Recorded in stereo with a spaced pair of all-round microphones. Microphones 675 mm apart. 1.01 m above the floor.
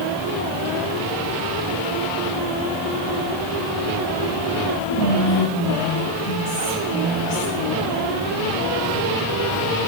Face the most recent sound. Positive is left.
turn(degrees=-50)  # may be behind; listen again after turning